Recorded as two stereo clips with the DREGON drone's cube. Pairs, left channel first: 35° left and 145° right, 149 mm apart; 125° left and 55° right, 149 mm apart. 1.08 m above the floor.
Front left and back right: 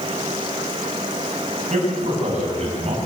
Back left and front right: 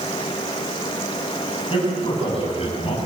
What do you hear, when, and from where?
1.7 s a man speaking: 175° left, 8.5 m; by 3.0 s 170° left, 6.5 m